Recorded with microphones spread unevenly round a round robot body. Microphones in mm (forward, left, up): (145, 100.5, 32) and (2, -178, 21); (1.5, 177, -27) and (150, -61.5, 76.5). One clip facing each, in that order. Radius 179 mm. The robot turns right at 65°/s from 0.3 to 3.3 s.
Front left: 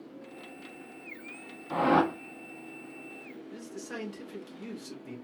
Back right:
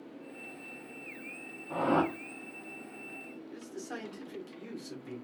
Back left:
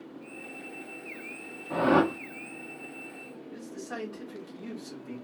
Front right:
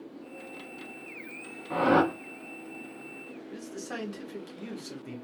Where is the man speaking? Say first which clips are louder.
Front left 1 dB, even; 10° right, 1.7 m.